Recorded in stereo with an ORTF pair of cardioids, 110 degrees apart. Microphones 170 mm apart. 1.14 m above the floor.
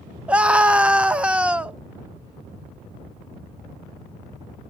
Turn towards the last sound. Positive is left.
turn(degrees=-5)